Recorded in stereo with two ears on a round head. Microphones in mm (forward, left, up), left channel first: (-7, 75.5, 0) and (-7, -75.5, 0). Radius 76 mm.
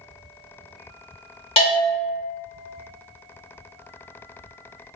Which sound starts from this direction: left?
A bell, at 1.6 s.